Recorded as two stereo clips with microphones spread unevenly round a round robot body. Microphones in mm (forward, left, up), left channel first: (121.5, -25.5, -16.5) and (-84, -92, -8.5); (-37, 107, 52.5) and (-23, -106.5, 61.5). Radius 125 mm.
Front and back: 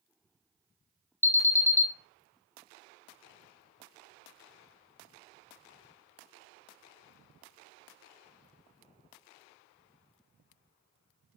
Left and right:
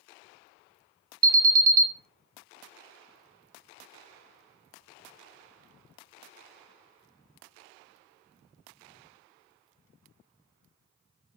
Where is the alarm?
55° right, 0.7 m.